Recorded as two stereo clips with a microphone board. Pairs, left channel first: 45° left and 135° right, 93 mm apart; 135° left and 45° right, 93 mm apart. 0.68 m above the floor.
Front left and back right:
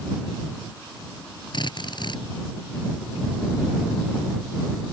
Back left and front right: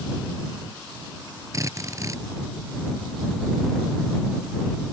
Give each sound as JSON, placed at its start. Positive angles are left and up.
{"t": 1.5, "sound": "a drill", "azimuth_deg": 10}